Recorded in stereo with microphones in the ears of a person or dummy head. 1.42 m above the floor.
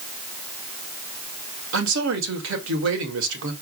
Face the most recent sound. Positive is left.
turn(degrees=-70)  # may be behind; listen again after turning